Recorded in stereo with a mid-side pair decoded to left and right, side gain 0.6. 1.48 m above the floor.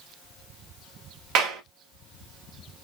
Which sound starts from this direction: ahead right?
A clap, at 1.4 s.